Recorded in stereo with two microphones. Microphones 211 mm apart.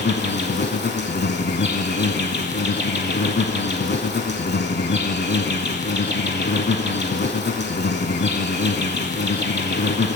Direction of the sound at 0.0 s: 55° left (ahead or behind).